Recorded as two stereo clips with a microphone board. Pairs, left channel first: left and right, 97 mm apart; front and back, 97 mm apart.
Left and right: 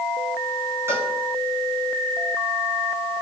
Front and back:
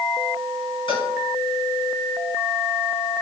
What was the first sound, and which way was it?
A cowbell, 25° right.